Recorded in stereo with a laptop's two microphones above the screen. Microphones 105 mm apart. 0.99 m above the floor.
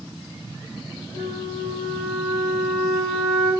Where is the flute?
20° left (ahead or behind), 3 m.